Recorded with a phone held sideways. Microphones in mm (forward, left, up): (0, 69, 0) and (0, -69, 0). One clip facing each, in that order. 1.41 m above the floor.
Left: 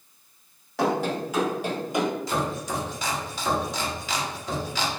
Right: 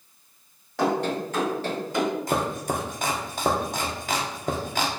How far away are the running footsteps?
About 1.6 m.